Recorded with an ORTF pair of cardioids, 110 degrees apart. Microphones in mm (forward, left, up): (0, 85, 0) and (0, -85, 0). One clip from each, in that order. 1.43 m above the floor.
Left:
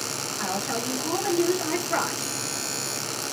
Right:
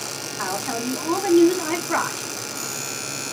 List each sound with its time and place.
0.4 s a woman speaking: 45° right, 5 m